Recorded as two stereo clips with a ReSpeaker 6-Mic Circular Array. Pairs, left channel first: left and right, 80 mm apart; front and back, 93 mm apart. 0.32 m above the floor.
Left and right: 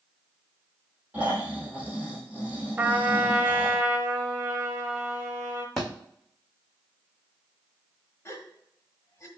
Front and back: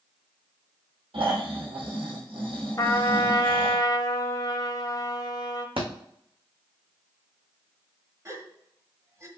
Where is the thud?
175° left, 2.0 m.